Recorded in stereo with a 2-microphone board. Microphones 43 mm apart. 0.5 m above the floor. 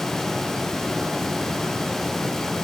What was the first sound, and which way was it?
Only background noise.